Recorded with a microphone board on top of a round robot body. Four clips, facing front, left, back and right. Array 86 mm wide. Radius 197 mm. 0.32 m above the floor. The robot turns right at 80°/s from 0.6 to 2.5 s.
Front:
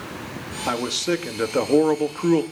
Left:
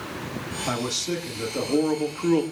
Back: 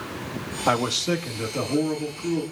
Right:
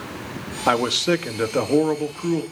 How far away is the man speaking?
About 1.8 m.